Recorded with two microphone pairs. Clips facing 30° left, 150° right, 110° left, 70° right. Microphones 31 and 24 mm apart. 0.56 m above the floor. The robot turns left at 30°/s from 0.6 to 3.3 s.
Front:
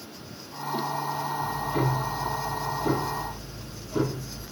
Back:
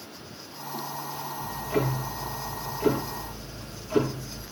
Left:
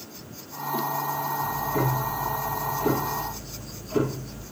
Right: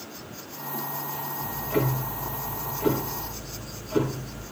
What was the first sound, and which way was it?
Ticking, 105° right.